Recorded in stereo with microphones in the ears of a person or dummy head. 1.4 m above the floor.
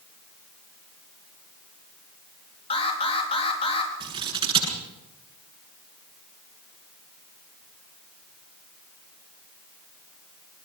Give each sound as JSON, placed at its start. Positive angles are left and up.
{"t": 2.7, "sound": "an alarm", "side_deg": 25, "distance_m": 4.0}
{"t": 4.0, "sound": "scissors", "side_deg": -30, "distance_m": 8.5}